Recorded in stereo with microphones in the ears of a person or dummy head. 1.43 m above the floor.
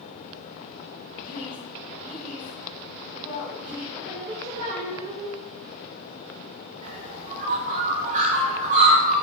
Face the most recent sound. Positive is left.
turn(degrees=-40)  # may be behind; listen again after turning